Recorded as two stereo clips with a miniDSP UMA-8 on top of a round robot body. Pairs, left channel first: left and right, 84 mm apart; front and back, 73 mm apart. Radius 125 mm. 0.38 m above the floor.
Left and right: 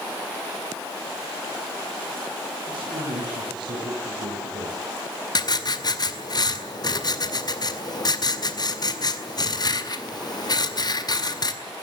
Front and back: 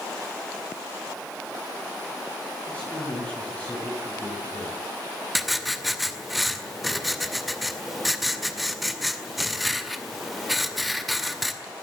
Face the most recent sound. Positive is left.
turn(degrees=90)